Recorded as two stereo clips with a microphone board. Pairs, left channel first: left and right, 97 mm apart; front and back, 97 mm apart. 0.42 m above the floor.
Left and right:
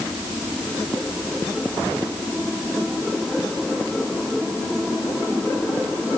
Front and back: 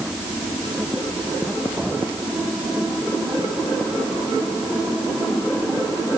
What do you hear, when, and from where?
Only background noise.